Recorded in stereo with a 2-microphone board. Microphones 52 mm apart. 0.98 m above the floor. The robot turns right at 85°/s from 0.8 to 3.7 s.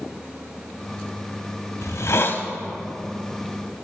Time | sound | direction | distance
1.8 | a hiss | 80° left | 0.7 m